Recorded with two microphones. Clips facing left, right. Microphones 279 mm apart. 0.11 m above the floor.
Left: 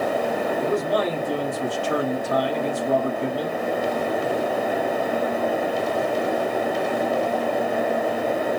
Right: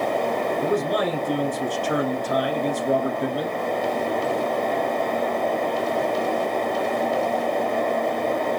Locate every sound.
0.6 s a man speaking: 20° right (ahead or behind), 1.3 m